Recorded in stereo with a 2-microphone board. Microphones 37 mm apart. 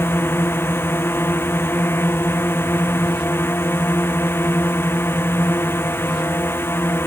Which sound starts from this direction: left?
A drone, at 0.0 s.